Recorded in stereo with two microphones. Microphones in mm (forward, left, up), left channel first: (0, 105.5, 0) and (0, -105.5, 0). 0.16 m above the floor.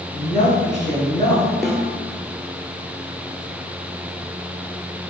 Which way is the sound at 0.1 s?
40° left (ahead or behind).